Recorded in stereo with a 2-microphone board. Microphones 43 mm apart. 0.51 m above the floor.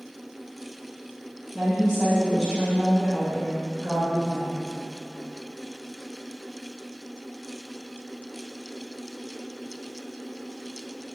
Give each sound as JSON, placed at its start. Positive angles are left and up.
{"t": 1.5, "sound": "a woman speaking", "side_deg": 0, "distance_m": 1.5}